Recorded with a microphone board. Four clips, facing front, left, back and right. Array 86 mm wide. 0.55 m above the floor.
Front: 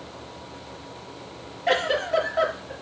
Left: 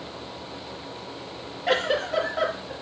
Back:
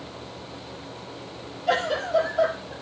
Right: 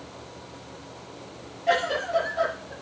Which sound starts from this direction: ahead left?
A giggle, at 1.7 s.